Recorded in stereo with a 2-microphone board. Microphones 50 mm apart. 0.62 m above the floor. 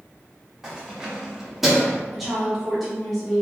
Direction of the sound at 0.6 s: 10° right (ahead or behind).